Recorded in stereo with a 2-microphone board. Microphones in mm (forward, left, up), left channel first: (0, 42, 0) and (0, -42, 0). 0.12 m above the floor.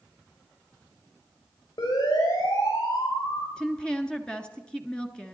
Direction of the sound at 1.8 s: 80° left.